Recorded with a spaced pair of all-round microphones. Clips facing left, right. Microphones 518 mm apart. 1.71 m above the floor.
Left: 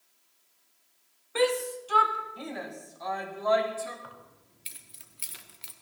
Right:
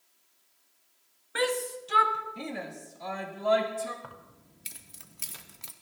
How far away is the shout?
About 1.4 m.